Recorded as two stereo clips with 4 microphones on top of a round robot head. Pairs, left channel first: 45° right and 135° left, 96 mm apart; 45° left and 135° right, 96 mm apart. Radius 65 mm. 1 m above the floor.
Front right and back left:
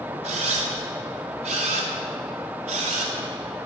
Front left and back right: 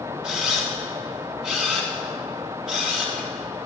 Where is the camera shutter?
145° left, 1.1 m.